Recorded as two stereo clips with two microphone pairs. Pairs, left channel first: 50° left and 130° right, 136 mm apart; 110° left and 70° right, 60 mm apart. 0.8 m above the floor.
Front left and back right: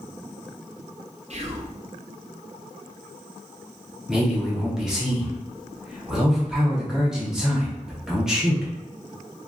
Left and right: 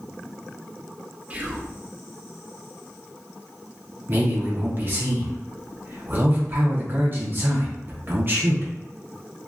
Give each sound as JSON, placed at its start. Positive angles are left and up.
{"t": 1.3, "sound": "whispering", "azimuth_deg": -125, "distance_m": 0.6}
{"t": 4.1, "sound": "a man speaking", "azimuth_deg": -50, "distance_m": 0.7}